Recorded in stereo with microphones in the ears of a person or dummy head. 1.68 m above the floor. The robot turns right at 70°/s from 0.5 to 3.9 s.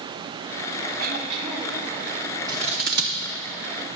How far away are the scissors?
About 0.8 m.